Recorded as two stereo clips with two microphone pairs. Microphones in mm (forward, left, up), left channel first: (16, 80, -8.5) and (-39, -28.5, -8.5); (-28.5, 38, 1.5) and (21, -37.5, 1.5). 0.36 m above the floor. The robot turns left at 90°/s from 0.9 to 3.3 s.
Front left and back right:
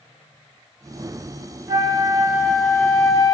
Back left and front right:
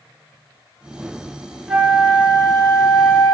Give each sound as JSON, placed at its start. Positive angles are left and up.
{"t": 1.7, "sound": "a flute", "azimuth_deg": -130, "distance_m": 0.7}